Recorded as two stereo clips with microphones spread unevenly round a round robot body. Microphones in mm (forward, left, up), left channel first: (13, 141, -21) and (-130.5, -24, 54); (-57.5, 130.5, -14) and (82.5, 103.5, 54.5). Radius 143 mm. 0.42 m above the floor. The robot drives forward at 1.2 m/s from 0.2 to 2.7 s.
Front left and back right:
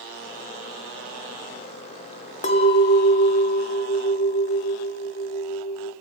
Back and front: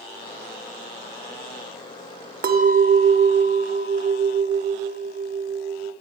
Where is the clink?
15° left, 1.2 m; by 6.0 s 25° left, 1.0 m.